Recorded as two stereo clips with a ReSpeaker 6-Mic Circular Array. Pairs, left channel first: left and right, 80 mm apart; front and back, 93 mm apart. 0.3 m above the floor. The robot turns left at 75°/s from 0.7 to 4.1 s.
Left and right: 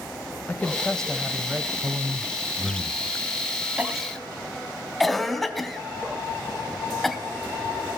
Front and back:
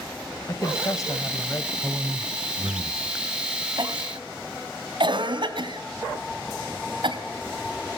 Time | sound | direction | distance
0.5 | a woman speaking | 35° left | 1.2 m
1.8 | a man speaking | 100° right | 1.3 m
3.8 | a cough | 155° right | 3 m